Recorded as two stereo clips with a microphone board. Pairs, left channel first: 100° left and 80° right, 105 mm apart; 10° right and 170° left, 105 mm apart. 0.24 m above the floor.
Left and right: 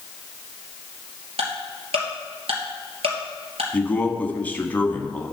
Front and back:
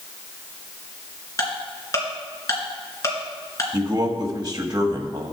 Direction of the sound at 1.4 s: 70° right.